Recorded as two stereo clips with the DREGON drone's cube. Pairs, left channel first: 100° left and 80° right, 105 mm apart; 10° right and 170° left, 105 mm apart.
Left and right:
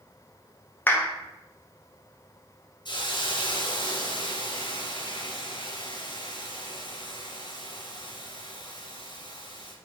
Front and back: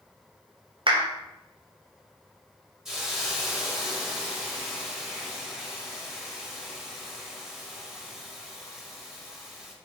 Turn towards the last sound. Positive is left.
turn(degrees=85)